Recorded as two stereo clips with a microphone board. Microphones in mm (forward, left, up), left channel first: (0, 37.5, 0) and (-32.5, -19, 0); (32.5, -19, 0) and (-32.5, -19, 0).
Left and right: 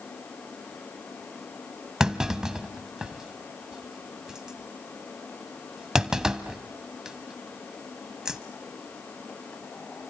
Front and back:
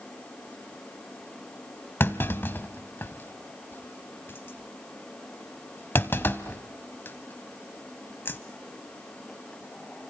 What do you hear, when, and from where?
2.0 s a clunk: 45° right, 1.0 m